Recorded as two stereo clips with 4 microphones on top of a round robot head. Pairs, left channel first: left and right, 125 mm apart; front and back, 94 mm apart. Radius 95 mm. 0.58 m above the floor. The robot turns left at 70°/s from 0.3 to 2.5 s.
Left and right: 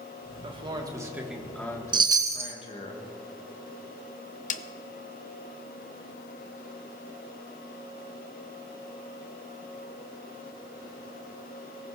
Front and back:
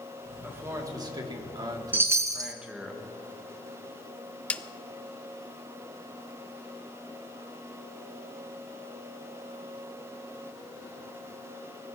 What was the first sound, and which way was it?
A man speaking, 110° right.